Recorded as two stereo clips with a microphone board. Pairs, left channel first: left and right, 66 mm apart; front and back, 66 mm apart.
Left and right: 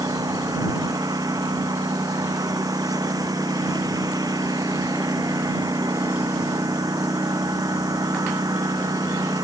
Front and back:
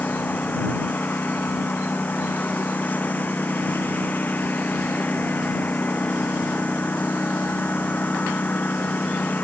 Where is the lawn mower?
65° right.